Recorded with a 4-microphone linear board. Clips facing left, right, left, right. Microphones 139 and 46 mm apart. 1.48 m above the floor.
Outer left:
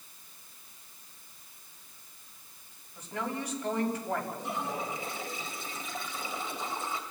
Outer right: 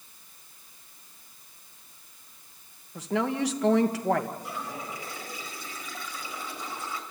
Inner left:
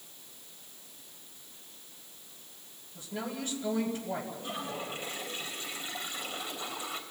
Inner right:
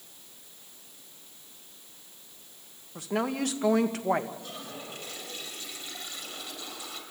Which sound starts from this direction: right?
A woman speaking, at 3.0 s.